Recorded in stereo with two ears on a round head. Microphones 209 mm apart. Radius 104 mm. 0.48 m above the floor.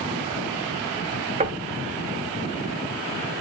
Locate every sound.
1.4 s knocking: 30° right (ahead or behind), 1.2 m